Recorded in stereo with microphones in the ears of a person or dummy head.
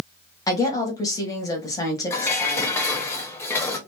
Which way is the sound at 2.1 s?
15° left (ahead or behind).